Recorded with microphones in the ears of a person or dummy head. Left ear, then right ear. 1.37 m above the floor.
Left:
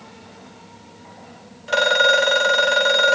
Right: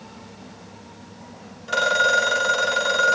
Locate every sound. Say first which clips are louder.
1.7 s a phone ringing: left 3 dB; 15° left (ahead or behind), 2.5 m